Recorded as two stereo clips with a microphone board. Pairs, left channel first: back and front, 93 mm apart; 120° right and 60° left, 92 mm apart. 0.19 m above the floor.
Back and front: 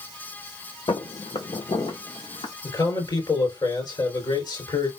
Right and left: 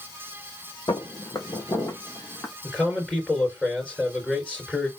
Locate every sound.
0.9 s footsteps: 155° right, 1.0 m; by 2.5 s 170° left, 1.6 m
2.6 s a man speaking: 165° left, 2.5 m